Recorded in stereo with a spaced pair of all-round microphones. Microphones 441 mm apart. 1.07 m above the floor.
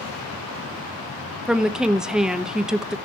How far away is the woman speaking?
About 0.8 m.